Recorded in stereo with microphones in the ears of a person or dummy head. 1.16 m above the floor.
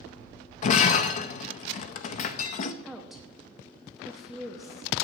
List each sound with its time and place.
0.6 s breaking glass: 40° left (ahead or behind), 0.5 m
2.8 s a woman speaking: centre (ahead or behind), 0.6 m